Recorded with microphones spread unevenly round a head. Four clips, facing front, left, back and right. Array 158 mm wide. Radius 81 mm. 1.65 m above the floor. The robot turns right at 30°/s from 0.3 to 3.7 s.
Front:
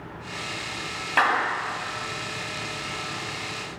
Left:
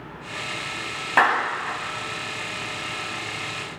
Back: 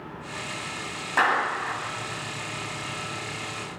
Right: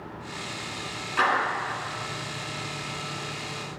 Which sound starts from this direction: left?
A clap, at 1.2 s.